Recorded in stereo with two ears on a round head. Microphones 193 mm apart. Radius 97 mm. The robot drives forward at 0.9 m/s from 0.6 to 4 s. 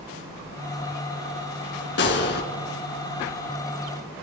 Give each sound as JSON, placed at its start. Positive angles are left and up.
{"t": 2.0, "sound": "a gunshot", "side_deg": 60, "distance_m": 3.0}